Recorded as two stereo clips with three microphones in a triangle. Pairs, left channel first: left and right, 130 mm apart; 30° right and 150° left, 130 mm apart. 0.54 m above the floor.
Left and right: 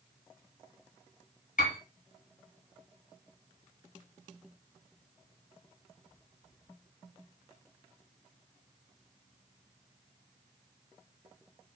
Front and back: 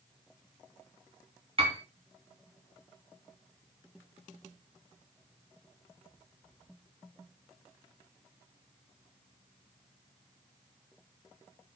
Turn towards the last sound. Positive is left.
turn(degrees=105)